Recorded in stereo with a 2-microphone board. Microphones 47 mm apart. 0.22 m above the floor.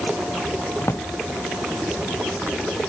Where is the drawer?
70° left (ahead or behind).